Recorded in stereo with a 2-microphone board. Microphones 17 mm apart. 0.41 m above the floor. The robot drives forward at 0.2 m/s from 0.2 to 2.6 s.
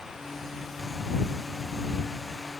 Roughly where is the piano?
No piano in this recording.